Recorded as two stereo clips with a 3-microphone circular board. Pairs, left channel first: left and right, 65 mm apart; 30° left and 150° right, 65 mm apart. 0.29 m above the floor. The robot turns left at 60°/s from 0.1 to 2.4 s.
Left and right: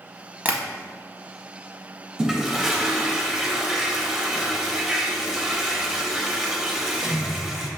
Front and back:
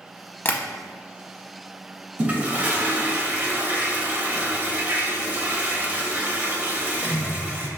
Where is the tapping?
25° right, 0.6 m; by 0.6 s 35° right, 0.6 m.